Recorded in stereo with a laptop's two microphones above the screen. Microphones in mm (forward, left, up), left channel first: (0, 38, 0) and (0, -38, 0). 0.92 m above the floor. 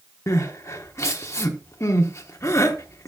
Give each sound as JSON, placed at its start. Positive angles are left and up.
{"t": 0.3, "sound": "crying", "side_deg": 40, "distance_m": 0.8}